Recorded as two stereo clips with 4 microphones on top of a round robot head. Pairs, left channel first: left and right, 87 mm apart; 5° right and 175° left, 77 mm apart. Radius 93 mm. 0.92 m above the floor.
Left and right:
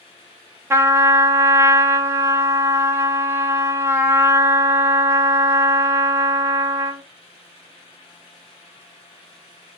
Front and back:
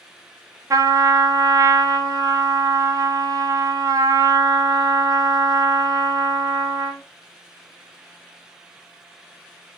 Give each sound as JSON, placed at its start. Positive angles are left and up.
{"t": 0.7, "sound": "a trumpet", "azimuth_deg": -150, "distance_m": 0.7}